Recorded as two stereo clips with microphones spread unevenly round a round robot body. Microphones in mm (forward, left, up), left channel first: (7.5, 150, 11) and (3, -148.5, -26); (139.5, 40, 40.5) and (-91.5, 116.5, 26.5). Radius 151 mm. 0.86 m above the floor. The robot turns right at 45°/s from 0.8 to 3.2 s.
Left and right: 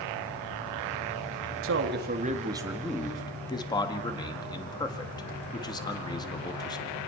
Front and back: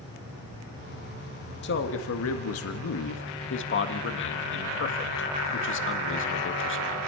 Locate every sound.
1.6 s a man speaking: 60° right, 1.7 m; by 7.0 s 10° left, 1.7 m